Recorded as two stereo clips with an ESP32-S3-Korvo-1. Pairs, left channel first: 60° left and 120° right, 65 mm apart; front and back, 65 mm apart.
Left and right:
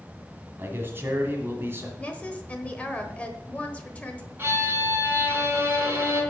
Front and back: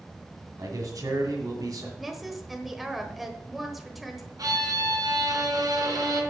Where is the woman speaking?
95° left, 1.1 m.